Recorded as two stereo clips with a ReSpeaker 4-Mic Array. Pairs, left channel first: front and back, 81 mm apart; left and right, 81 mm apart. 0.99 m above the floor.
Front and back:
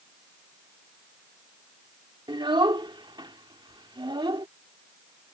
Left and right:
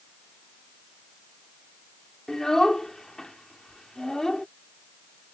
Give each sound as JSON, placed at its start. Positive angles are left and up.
{"t": 2.3, "sound": "a child speaking", "azimuth_deg": 175}